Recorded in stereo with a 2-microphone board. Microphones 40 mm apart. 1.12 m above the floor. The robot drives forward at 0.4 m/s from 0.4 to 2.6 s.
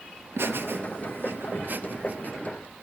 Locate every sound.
0.4 s laughter: 75° right (ahead or behind), 1.1 m; by 2.3 s 45° right (ahead or behind), 1.5 m